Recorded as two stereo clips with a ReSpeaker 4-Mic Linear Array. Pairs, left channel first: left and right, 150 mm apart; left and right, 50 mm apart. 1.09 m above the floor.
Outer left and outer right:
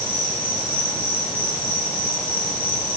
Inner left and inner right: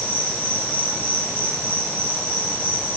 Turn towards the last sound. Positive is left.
turn(degrees=35)  # may be behind; listen again after turning